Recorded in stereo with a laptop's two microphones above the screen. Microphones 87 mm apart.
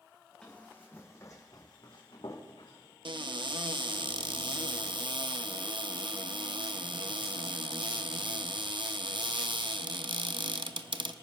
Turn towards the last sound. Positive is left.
turn(degrees=-65)  # may be behind; listen again after turning